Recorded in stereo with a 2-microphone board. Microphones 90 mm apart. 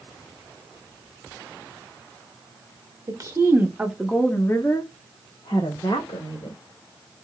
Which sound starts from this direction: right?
A woman speaking, at 3.1 s.